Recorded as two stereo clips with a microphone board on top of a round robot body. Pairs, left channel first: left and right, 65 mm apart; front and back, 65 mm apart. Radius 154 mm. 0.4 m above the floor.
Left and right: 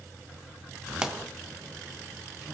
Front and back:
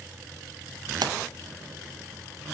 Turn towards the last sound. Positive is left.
turn(degrees=-170)